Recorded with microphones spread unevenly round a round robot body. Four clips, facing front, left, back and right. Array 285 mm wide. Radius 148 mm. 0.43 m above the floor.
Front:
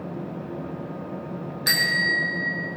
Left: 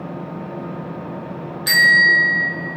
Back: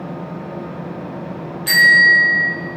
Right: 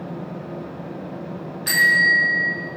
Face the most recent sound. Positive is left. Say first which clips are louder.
# left 3 dB, back 12 dB
turn(degrees=35)